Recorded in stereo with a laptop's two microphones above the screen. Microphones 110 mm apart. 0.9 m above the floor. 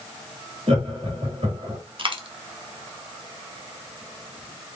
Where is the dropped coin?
50° right (ahead or behind), 0.7 m.